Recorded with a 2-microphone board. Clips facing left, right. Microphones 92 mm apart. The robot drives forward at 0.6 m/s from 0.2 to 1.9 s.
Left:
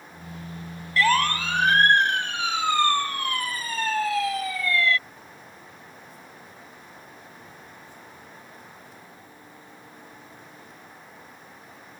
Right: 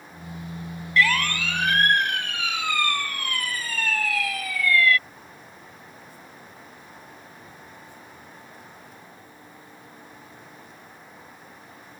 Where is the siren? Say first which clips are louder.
Left 2 dB; 35° left (ahead or behind); by 5.0 s 25° left (ahead or behind).